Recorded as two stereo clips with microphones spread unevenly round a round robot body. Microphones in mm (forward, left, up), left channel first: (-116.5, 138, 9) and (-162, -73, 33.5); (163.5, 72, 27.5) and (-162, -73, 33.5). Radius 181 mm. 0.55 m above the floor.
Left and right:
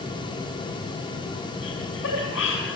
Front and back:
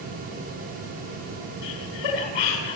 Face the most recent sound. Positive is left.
turn(degrees=25)